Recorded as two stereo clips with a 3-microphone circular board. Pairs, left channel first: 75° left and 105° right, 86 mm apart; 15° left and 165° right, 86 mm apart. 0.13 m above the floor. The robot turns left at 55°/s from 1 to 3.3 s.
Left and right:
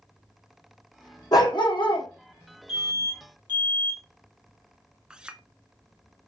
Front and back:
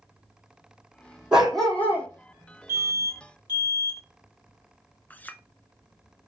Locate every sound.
1.3 s a dog barking: 115° left, 2 m; by 2.1 s 75° left, 2 m
2.7 s an alarm: 50° left, 3 m; by 4.0 s 20° left, 3 m
5.1 s a clink: 35° right, 0.7 m